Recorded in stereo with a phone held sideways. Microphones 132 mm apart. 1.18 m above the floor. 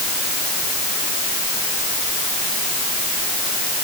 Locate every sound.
Only background noise.